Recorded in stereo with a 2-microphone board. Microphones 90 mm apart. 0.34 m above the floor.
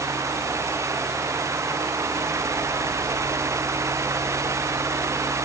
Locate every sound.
Only background noise.